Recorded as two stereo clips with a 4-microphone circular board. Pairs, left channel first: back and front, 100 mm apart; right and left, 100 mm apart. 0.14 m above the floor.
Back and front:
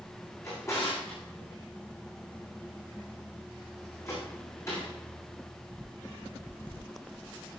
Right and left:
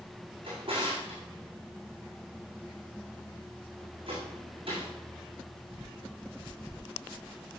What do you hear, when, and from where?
0.4 s a drawer: 115° left, 5.5 m